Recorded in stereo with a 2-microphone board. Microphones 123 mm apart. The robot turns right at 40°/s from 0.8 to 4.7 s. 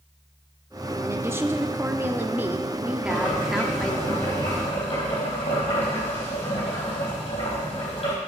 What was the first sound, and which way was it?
A woman speaking, 20° right (ahead or behind).